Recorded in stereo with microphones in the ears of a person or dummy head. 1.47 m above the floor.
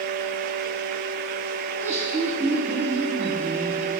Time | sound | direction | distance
1.7 | laughter | 5° right (ahead or behind) | 1.0 m